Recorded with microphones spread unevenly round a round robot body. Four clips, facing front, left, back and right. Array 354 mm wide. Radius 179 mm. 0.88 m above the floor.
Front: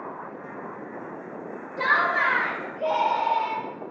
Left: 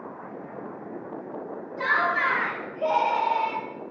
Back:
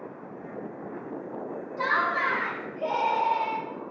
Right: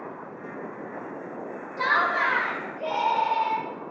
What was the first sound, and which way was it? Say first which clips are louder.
Laughter: right 1 dB, front 3 dB; 100° right.